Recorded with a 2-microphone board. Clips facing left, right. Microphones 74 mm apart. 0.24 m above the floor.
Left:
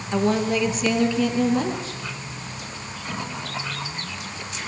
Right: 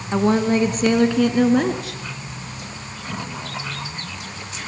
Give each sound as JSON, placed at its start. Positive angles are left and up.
{"t": 0.1, "sound": "a woman speaking", "side_deg": -25, "distance_m": 2.5}